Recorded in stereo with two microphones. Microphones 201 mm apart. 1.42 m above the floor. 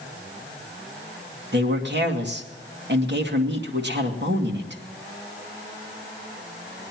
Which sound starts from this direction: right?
A man speaking, at 1.5 s.